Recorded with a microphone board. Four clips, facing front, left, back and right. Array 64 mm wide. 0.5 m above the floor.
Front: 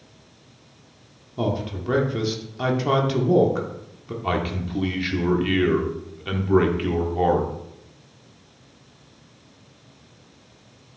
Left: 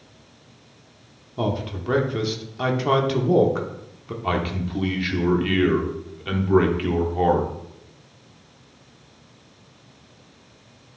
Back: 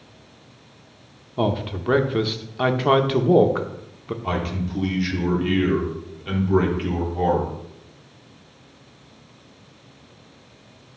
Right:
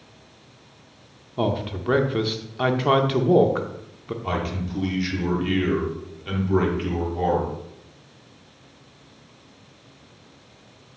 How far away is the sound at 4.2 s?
About 1.3 m.